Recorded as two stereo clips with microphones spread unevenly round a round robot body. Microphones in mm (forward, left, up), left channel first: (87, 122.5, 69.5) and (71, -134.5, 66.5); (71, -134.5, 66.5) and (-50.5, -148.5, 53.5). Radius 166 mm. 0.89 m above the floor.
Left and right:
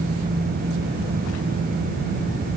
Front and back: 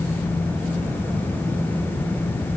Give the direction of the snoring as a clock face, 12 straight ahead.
No snoring in this recording.